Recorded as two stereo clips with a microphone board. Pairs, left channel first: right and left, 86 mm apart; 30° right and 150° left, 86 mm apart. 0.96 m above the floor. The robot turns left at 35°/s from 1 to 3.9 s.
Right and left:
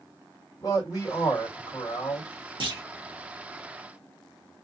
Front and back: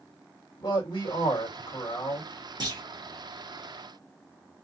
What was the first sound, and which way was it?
A man speaking, 45° right.